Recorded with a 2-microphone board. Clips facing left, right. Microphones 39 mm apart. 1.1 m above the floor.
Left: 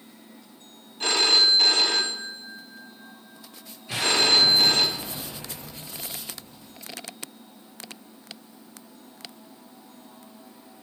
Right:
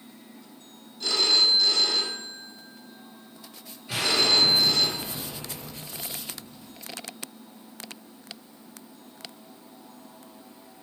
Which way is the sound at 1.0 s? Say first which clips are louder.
Left 2 dB; 60° left (ahead or behind).